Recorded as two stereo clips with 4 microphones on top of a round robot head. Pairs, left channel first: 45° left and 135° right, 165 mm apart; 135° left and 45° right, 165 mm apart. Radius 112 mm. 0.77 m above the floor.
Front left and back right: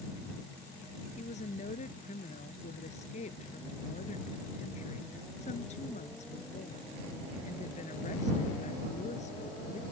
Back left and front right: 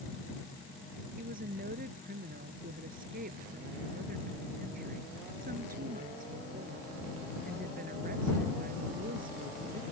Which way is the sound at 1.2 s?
5° right.